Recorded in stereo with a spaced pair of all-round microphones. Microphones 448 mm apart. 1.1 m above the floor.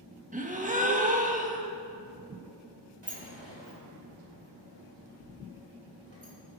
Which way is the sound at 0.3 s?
20° right (ahead or behind).